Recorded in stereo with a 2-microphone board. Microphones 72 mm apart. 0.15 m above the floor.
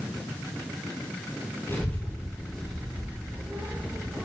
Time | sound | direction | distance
1.7 | a child speaking | 30° left (ahead or behind) | 2 m